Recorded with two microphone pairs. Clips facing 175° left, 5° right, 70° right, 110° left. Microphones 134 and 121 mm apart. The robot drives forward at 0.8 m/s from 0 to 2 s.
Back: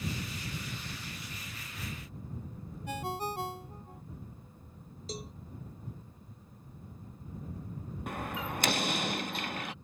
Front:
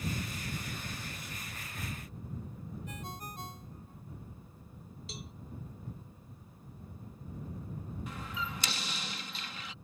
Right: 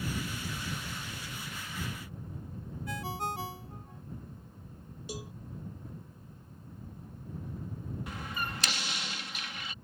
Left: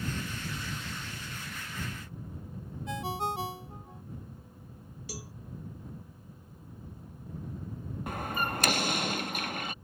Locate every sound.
2.9 s a ringtone: straight behind
5.1 s a cowbell: 135° right
8.1 s a door slam: 150° left